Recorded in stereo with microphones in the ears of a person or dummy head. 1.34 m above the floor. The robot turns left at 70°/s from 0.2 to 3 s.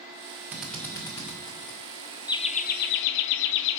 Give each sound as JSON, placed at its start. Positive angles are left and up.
{"t": 0.5, "sound": "a drill", "side_deg": -5, "distance_m": 1.4}
{"t": 2.3, "sound": "laughter", "azimuth_deg": 150, "distance_m": 0.5}